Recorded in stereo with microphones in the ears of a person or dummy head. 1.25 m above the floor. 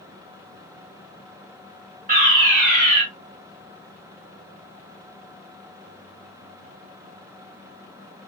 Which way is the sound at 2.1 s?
40° right (ahead or behind).